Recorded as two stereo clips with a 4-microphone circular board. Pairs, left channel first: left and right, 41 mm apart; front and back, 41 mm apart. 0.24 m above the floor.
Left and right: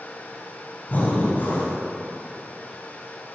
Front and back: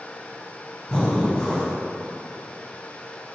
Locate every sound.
0.9 s breathing: 65° left, 1.9 m